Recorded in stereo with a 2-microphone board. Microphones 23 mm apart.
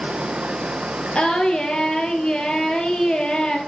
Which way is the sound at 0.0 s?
50° right (ahead or behind).